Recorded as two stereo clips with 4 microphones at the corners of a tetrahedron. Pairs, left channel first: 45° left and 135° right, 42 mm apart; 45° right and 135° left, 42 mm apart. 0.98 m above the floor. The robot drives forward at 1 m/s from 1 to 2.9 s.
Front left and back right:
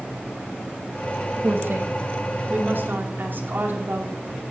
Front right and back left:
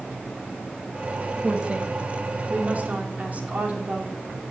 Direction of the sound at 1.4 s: 160° right.